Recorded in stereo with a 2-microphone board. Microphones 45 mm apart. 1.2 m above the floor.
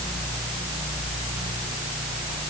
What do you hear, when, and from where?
Only background noise.